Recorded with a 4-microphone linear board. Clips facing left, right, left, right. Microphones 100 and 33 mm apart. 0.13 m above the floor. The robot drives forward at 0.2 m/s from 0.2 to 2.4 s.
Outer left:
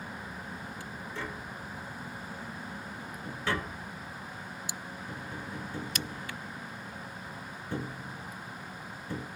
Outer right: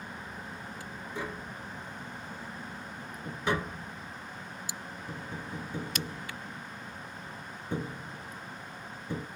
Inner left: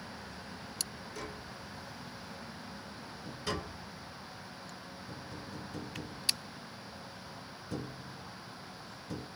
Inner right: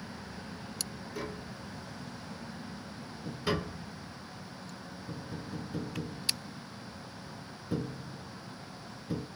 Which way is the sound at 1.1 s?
15° right (ahead or behind).